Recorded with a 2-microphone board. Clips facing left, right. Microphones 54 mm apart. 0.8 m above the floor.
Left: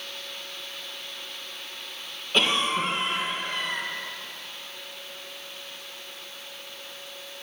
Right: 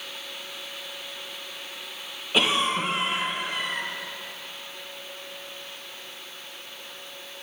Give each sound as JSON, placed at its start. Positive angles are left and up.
{"t": 2.3, "sound": "a cough", "side_deg": -5, "distance_m": 0.8}